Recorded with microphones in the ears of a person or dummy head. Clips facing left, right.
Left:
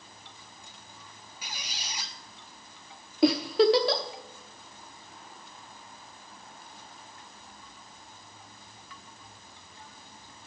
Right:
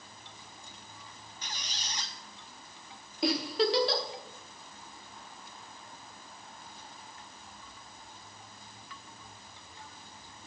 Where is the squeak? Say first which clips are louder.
Left 1 dB; 5° left (ahead or behind), 1.0 m.